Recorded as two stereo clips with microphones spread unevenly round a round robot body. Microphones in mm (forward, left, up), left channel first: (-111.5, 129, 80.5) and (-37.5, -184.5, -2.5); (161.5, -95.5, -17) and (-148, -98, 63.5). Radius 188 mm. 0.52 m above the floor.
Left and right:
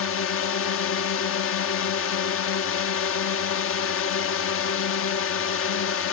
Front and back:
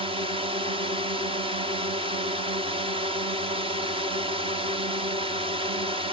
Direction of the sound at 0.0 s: 95° left.